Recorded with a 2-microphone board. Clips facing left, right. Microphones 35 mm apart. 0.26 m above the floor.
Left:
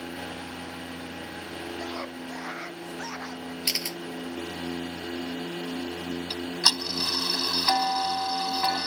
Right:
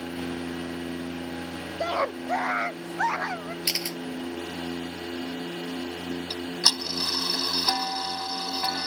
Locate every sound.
1.8 s a scream: 50° right (ahead or behind)
3.6 s a camera shutter: 5° right (ahead or behind)
6.3 s ticking: 30° left (ahead or behind)